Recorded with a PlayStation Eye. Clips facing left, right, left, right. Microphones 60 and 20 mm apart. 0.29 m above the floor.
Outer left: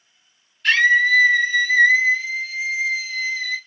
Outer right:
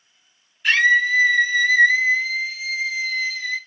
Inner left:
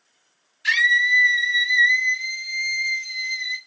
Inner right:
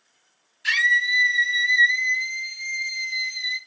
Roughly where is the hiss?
I don't hear a hiss.